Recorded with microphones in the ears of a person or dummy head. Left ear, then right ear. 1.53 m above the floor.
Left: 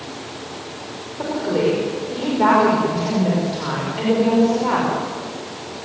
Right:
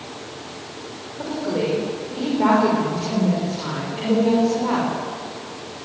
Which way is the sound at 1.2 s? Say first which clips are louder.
Left 4 dB; 10° left (ahead or behind).